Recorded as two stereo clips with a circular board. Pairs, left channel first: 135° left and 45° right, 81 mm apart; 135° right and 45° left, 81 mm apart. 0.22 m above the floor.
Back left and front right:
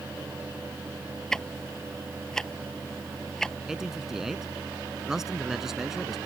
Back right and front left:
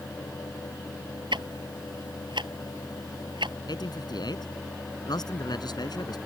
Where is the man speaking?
130° right.